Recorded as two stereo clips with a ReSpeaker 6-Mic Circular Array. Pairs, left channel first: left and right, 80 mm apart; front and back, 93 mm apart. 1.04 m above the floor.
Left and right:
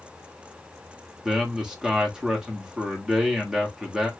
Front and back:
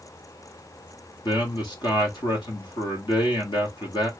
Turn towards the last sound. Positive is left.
turn(degrees=-10)